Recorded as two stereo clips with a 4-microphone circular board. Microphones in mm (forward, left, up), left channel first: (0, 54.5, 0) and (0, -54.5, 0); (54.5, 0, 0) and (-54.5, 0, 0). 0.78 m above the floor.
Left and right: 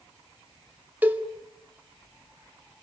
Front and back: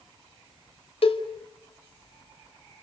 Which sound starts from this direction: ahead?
A cowbell, at 1.0 s.